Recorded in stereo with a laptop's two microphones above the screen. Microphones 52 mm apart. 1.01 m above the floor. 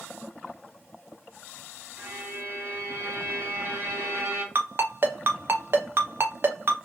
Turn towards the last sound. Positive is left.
turn(degrees=-50)  # may be behind; listen again after turning